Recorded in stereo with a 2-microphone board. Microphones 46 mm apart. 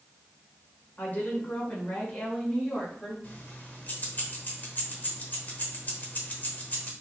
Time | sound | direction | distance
1.0 | a woman speaking | 35° left (ahead or behind) | 1.7 m
3.2 | keys jangling | 40° left (ahead or behind) | 0.9 m